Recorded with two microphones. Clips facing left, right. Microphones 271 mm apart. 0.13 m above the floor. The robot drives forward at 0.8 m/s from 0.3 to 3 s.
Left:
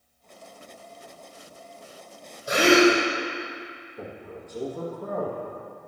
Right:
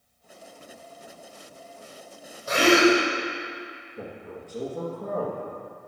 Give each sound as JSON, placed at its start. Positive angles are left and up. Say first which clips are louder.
{"t": 2.5, "sound": "a gasp", "louder": "left 1 dB", "side_deg": 15, "distance_m": 3.0}
{"t": 4.0, "sound": "a man speaking", "louder": "right 1 dB", "side_deg": -35, "distance_m": 3.0}